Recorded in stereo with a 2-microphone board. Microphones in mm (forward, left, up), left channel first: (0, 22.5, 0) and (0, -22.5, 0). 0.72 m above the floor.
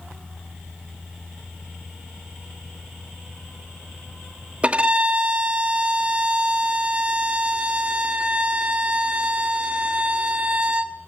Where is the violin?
30° right (ahead or behind), 1.2 m.